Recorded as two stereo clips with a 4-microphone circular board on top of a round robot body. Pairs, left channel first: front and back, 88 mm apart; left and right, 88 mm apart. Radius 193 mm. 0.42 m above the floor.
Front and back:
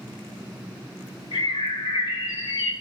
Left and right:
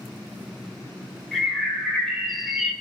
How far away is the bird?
About 2.5 m.